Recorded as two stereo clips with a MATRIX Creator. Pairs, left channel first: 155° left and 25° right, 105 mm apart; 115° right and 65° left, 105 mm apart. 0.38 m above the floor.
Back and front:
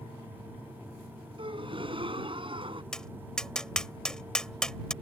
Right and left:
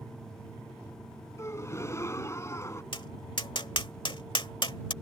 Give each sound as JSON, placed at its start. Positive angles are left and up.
{"t": 1.4, "sound": "a gasp", "azimuth_deg": -50}
{"t": 2.9, "sound": "tapping", "azimuth_deg": -120}